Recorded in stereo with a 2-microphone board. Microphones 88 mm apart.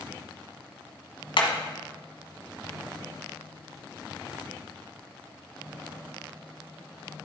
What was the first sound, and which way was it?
Hammering, 70° left (ahead or behind).